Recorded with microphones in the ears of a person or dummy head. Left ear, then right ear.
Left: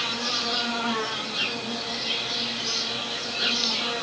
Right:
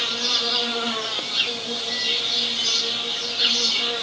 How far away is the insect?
About 2.5 m.